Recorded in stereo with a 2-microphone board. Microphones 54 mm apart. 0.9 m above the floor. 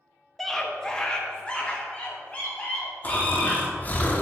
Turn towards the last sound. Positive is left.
turn(degrees=30)  # may be behind; listen again after turning